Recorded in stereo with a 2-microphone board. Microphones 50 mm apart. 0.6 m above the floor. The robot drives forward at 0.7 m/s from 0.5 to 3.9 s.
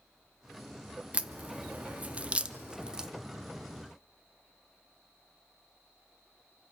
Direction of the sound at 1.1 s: 25° right (ahead or behind).